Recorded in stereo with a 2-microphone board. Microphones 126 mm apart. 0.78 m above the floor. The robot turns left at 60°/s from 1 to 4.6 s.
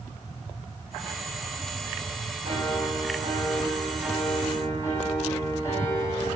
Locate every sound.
2.4 s a piano: 75° right, 1.0 m; by 6.3 s 155° left, 1.0 m